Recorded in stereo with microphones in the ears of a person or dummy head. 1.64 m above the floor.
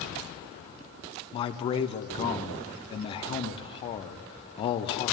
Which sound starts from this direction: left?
A man speaking, at 1.3 s.